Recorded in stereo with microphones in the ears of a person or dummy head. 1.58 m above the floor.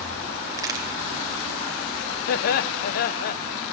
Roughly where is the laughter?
Left.